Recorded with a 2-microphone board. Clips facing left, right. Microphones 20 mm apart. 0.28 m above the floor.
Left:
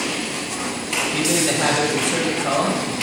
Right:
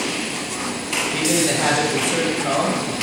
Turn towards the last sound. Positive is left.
turn(degrees=5)  # may be behind; listen again after turning